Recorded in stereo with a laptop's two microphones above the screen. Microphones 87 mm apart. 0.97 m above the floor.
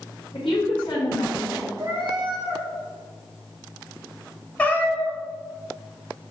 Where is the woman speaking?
70° left (ahead or behind), 1.5 m.